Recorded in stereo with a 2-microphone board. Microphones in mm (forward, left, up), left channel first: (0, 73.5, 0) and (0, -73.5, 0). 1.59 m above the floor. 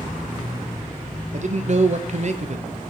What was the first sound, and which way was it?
A man speaking, 50° right (ahead or behind).